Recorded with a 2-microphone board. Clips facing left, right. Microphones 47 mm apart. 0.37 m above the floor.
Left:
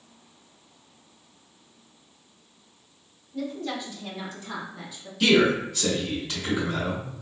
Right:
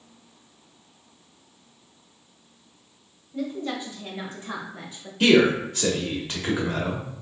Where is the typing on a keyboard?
No typing on a keyboard in this recording.